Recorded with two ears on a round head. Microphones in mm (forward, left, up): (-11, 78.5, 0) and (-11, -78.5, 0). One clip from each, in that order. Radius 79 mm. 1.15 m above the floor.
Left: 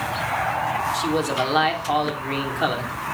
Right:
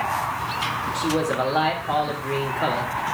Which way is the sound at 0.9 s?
75° left (ahead or behind).